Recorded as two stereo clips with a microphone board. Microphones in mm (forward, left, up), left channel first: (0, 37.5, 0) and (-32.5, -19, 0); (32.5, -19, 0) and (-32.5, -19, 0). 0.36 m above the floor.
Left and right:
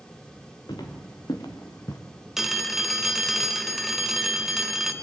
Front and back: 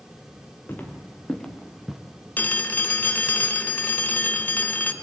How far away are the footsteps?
About 3 m.